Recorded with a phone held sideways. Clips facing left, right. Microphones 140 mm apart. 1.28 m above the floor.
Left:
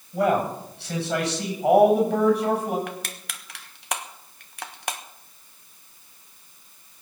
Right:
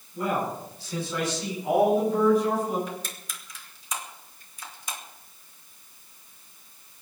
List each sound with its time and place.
0.1 s a man speaking: 70° left (ahead or behind), 8.5 m; by 2.8 s 65° left (ahead or behind), 12 m
2.9 s crushing: 70° left (ahead or behind), 1.3 m